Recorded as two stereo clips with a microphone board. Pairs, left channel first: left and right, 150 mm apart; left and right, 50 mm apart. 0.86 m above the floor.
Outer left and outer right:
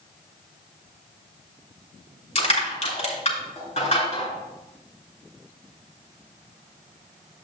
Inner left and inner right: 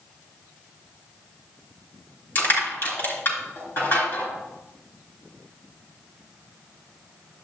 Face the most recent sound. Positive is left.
turn(degrees=50)  # may be behind; listen again after turning